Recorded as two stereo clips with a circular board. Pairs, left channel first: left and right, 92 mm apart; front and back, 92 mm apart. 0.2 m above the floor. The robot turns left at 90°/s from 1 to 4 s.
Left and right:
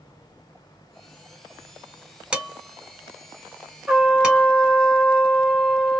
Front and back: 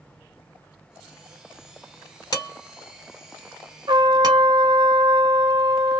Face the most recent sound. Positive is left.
turn(degrees=-175)